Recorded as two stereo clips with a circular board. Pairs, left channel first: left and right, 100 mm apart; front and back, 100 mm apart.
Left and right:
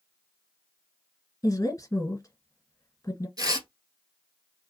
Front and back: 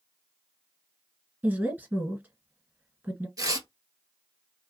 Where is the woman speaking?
120° left, 1.7 m.